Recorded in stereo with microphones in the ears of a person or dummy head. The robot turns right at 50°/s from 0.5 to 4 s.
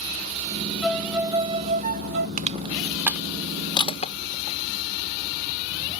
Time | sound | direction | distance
0.8 | a violin | 175° left | ?
2.4 | crushing | 45° right (ahead or behind) | ?